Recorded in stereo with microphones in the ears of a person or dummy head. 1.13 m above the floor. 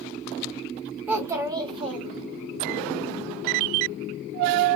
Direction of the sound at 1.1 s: 10° right (ahead or behind).